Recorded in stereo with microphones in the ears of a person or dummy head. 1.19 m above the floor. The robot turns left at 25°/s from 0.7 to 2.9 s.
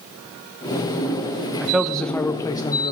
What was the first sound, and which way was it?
A man speaking, straight behind.